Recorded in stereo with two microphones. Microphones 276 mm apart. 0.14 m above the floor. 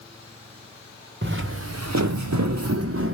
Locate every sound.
1.2 s footsteps: 40° right (ahead or behind), 0.7 m; by 3.1 s 50° right (ahead or behind), 0.7 m